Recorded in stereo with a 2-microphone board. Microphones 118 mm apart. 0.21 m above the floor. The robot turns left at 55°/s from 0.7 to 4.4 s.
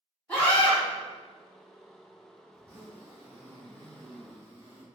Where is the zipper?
35° right, 1.3 m; by 4.8 s 140° right, 1.3 m.